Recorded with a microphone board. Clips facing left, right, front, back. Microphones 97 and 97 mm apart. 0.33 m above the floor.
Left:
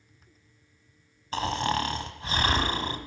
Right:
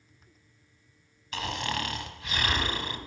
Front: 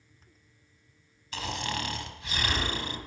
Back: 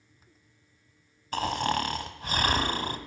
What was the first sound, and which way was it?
Snoring, 140° left.